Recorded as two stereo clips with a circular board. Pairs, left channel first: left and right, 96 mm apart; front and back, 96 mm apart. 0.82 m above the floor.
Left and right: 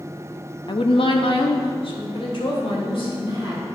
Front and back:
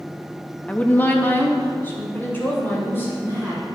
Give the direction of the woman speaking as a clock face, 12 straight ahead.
10 o'clock.